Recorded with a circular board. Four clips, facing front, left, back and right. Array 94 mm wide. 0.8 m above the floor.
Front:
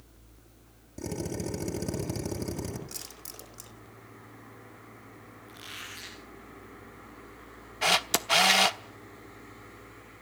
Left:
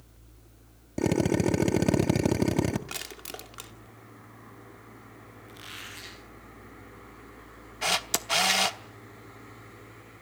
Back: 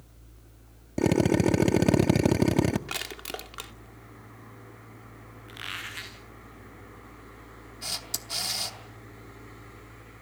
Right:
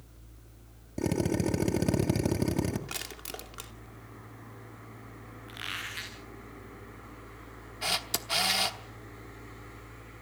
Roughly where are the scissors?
No scissors in this recording.